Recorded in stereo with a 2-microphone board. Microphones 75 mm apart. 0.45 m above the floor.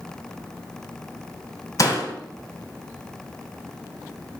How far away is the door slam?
About 1.7 m.